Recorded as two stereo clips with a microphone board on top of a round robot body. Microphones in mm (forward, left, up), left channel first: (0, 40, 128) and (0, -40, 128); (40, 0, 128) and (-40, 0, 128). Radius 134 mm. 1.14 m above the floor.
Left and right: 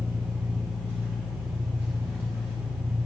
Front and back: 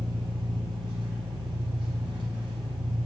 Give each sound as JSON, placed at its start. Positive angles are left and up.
{"t": 0.0, "sound": "an engine running", "azimuth_deg": -160, "distance_m": 1.0}